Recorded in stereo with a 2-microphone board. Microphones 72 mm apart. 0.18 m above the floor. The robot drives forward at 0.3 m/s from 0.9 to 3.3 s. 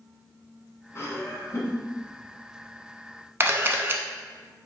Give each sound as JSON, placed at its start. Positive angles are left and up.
{"t": 0.9, "sound": "laughter", "side_deg": 40, "distance_m": 1.4}
{"t": 3.4, "sound": "a camera shutter", "side_deg": -35, "distance_m": 0.6}